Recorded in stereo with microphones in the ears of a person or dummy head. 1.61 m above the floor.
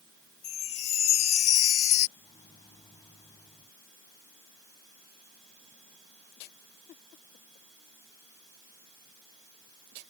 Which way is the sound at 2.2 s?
30° left (ahead or behind).